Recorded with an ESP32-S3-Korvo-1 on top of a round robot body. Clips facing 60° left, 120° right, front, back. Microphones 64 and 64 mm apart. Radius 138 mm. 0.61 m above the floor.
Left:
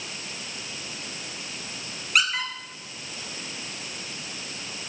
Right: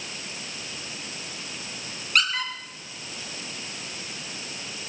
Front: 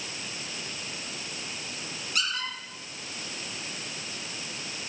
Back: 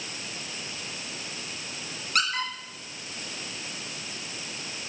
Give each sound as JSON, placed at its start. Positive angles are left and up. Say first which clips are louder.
{"t": 2.1, "sound": "a squeak", "louder": "even, back 4 dB", "azimuth_deg": 145, "distance_m": 5.0}